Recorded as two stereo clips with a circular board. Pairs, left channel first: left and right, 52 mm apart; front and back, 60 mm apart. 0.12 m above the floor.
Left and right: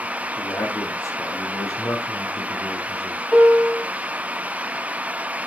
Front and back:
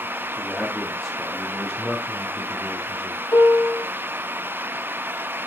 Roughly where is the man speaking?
Left.